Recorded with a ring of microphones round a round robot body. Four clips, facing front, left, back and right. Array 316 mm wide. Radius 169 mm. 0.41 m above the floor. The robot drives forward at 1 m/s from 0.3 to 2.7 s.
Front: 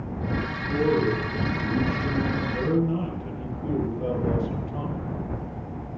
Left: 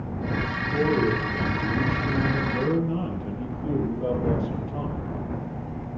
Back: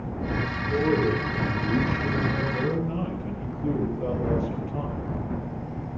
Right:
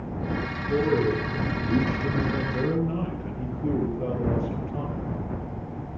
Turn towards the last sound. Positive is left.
turn(degrees=-105)